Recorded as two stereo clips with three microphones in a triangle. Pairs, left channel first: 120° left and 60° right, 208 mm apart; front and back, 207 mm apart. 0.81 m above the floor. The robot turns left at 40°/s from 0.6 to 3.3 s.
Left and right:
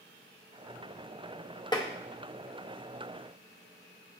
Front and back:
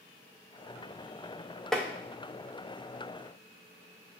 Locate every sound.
1.7 s tapping: 85° left, 0.5 m; by 1.9 s 75° left, 0.5 m